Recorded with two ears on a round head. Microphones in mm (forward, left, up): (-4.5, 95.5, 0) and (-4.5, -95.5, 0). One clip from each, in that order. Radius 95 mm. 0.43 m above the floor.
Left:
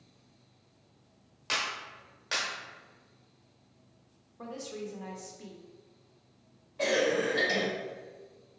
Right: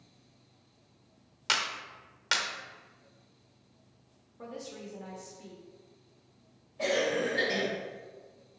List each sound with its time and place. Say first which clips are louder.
1.5 s a clap: right 2 dB; 45° right (ahead or behind), 0.8 m
4.4 s a woman speaking: left 3 dB; 15° left (ahead or behind), 0.8 m
6.8 s a cough: left 1 dB; 45° left (ahead or behind), 1.6 m